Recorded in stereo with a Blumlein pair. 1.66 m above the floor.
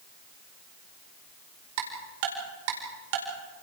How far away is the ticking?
About 4.5 m.